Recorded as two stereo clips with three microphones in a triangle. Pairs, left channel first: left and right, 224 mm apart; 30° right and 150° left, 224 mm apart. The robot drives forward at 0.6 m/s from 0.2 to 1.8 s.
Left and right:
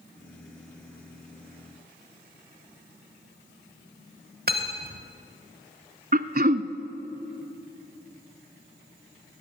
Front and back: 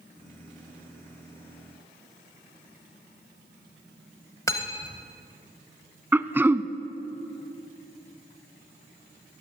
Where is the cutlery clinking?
100° right, 1.0 m.